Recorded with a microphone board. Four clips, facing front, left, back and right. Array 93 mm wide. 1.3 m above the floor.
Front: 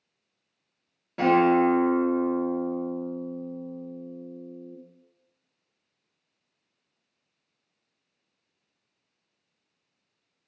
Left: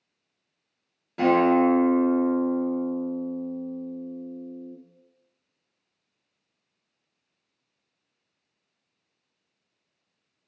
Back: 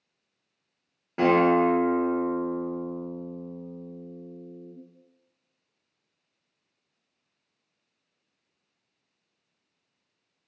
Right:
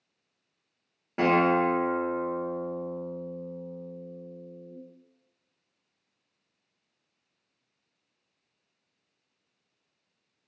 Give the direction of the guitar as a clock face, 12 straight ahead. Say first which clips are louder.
Left 3 dB, even; 4 o'clock.